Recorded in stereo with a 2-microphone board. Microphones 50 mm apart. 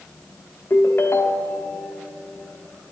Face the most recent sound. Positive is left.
turn(degrees=50)  # may be behind; listen again after turning